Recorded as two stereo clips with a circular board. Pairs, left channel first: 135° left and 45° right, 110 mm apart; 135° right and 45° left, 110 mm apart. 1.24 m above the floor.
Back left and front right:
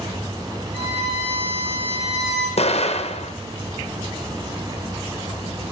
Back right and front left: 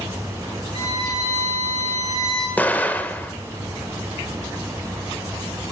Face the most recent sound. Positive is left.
turn(degrees=150)